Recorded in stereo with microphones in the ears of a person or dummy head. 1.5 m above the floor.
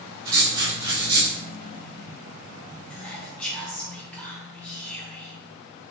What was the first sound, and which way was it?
Writing, 20° right (ahead or behind).